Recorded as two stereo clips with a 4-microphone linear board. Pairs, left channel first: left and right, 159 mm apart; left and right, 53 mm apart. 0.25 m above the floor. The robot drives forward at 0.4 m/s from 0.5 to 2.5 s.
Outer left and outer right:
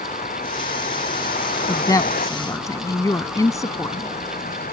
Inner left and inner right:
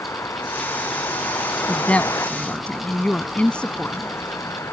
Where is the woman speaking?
25° left (ahead or behind); by 4.2 s 20° left (ahead or behind).